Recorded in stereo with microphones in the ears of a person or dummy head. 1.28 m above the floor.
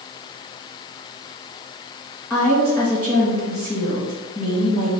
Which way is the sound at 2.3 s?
10° left (ahead or behind).